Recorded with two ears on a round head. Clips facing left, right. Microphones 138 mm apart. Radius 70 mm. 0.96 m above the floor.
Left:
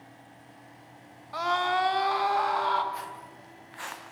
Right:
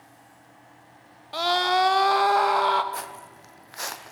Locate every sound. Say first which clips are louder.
1.3 s a scream: right 4 dB; 30° right (ahead or behind), 0.8 m; by 2.8 s 65° right (ahead or behind), 1.1 m
2.9 s footsteps: right 2 dB; 60° right (ahead or behind), 1.7 m; by 4.1 s 45° right (ahead or behind), 1.9 m